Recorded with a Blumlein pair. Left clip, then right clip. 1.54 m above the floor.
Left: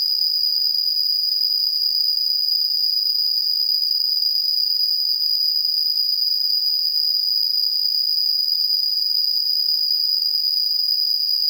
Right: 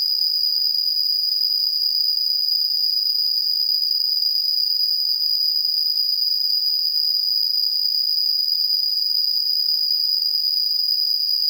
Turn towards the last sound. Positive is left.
turn(degrees=0)